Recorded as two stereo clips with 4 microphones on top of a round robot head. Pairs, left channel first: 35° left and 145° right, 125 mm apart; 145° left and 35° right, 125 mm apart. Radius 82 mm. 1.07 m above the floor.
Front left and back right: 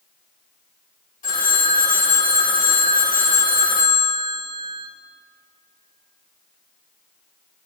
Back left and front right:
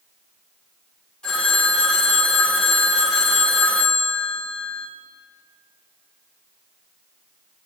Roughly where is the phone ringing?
Ahead left.